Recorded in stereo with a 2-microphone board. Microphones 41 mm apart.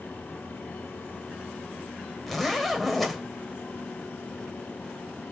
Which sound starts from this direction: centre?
A zipper, at 2.3 s.